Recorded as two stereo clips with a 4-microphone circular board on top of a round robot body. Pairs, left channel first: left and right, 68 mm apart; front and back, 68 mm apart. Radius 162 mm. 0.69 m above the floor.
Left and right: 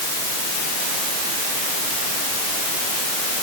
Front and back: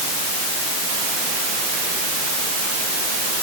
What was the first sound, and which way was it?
Only background noise.